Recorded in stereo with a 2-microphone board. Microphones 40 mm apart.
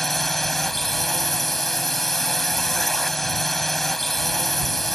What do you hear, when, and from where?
0.0 s a drone: 5° left (ahead or behind)